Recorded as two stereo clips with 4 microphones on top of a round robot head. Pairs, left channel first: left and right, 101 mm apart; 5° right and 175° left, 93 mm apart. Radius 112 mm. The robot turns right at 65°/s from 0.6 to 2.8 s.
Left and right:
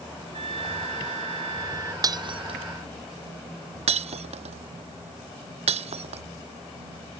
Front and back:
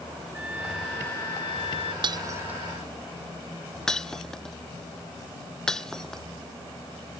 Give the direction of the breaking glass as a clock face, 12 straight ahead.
5 o'clock.